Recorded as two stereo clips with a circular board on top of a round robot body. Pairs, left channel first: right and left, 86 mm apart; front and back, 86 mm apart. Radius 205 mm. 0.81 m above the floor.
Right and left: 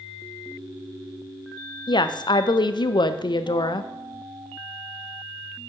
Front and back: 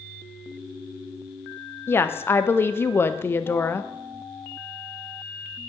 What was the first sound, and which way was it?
A woman speaking, 65° right.